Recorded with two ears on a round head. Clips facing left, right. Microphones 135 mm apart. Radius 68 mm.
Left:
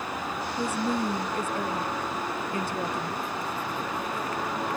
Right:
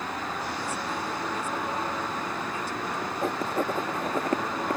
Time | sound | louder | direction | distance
0.6 | a woman speaking | left 5 dB | 45° left (ahead or behind) | ?
3.2 | writing | right 5 dB | 40° right (ahead or behind) | ?